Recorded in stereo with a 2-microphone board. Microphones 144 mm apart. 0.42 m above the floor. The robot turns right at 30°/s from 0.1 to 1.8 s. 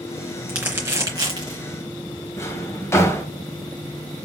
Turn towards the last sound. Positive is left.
turn(degrees=15)  # may be behind; listen again after turning